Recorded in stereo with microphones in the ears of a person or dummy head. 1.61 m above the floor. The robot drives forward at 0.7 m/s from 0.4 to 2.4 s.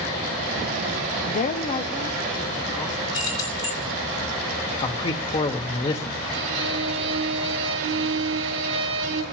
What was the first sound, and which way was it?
A woman speaking, 45° left (ahead or behind).